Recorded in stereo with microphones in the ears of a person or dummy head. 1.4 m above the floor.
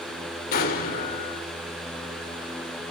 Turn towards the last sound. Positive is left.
turn(degrees=50)  # may be behind; listen again after turning